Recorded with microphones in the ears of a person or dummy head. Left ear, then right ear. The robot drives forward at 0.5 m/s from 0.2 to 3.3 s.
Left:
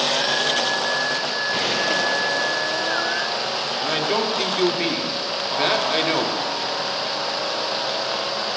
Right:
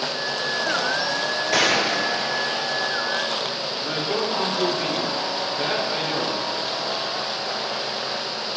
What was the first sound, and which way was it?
A gunshot, 45° right (ahead or behind).